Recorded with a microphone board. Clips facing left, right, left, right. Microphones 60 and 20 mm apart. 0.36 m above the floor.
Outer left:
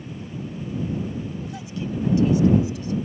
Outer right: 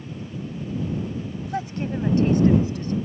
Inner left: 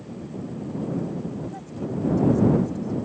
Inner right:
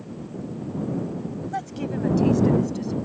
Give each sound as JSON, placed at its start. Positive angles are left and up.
{"t": 1.5, "sound": "a woman speaking", "side_deg": -50}